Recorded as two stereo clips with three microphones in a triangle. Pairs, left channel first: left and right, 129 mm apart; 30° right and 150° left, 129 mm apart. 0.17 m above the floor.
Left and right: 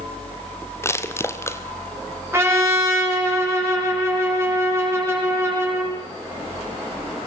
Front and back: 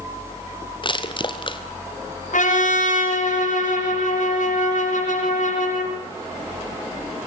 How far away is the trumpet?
About 8 m.